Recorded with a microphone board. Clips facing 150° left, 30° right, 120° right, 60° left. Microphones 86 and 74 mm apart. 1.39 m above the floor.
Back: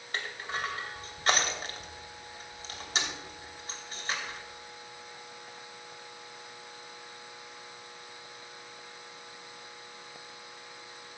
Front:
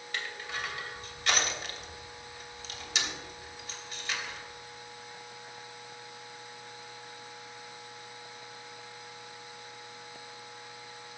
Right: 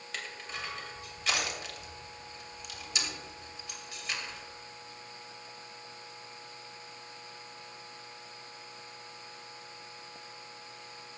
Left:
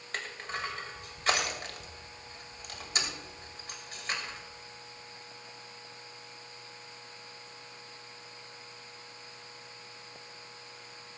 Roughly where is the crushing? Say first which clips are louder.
Back 2 dB, left 4 dB; left.